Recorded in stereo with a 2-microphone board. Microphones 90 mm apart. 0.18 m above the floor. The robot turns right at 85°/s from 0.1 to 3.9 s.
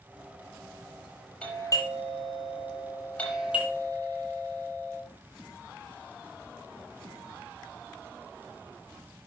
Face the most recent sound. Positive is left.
turn(degrees=-135)